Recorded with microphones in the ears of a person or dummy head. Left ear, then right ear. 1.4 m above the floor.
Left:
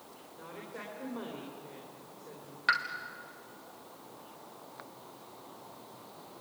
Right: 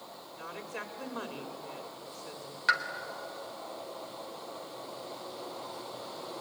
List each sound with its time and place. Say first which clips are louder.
0.4 s a woman speaking: right 4 dB; 65° right (ahead or behind), 3.5 m
2.7 s a pop: right 1 dB; 5° right (ahead or behind), 1.5 m